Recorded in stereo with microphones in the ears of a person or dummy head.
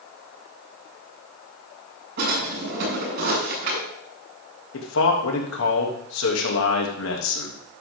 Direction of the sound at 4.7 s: 70° left (ahead or behind).